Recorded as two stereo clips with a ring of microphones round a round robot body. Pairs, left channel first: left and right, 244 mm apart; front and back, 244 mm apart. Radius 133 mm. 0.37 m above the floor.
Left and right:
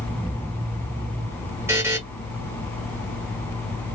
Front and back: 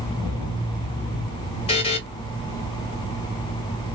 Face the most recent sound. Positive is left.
turn(degrees=-25)